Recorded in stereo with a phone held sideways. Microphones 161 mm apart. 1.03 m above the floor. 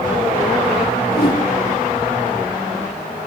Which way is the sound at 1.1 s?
80° left.